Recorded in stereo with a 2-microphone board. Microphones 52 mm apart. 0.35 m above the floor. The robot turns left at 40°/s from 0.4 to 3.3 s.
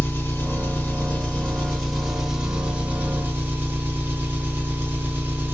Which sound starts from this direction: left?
An engine running, at 0.0 s.